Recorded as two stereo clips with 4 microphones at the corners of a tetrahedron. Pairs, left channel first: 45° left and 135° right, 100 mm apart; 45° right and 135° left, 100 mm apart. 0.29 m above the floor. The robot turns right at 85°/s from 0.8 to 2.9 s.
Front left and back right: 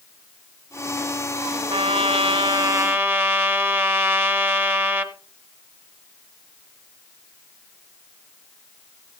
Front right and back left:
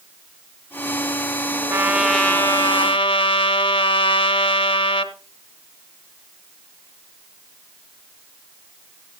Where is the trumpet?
170° right, 1.0 m; by 5.2 s 70° right, 1.0 m.